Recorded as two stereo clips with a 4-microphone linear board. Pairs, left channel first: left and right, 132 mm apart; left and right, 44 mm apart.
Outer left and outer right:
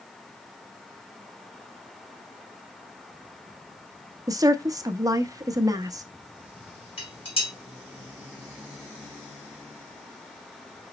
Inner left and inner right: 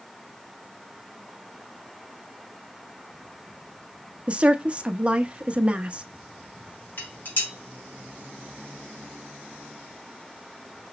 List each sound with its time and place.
4.3 s a woman speaking: 25° right (ahead or behind), 0.5 m
7.0 s dishes clattering: 45° left (ahead or behind), 2.5 m